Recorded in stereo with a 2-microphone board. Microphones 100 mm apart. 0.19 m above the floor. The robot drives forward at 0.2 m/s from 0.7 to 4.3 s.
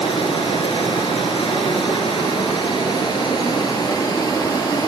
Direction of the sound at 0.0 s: 75° left (ahead or behind).